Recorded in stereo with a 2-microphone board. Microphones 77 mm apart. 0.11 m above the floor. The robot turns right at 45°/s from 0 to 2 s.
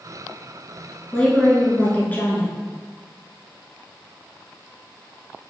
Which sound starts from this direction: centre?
A woman speaking, at 1.1 s.